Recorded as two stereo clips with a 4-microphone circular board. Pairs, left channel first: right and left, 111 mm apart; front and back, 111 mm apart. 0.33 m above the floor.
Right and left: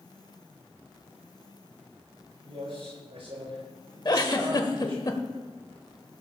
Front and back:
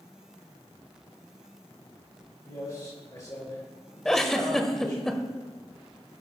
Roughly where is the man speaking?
Ahead left.